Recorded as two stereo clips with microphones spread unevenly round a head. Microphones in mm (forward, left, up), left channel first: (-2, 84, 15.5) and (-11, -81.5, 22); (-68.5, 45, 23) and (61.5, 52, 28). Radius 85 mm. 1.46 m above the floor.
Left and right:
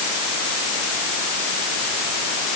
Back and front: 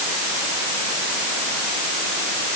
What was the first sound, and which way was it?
Only background noise.